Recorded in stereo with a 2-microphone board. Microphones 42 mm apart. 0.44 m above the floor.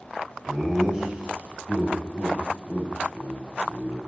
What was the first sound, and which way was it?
Laughter, 15° right (ahead or behind).